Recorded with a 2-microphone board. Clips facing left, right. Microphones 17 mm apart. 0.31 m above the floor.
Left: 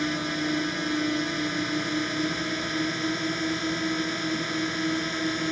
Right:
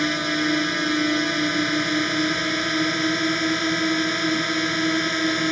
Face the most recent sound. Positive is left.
turn(degrees=-25)  # may be behind; listen again after turning